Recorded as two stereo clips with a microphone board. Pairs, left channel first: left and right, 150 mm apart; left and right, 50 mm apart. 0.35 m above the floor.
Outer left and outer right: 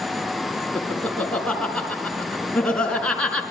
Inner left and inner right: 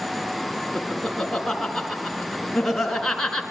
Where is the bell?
No bell in this recording.